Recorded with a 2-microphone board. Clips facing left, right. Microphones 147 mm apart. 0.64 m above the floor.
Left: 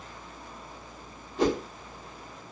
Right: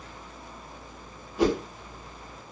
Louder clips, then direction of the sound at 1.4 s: Right 2 dB; 10° right (ahead or behind).